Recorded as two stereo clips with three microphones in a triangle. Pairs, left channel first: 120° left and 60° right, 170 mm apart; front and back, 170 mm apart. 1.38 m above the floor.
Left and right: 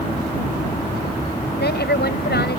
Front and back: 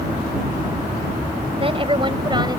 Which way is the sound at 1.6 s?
125° left.